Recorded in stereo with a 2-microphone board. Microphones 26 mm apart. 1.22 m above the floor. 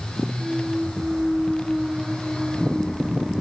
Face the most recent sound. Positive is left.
turn(degrees=-15)  # may be behind; listen again after turning